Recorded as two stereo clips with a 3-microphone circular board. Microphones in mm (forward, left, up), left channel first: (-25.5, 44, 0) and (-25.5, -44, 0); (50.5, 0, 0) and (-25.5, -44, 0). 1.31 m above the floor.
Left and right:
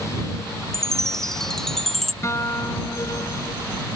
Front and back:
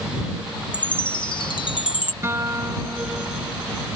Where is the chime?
5° left.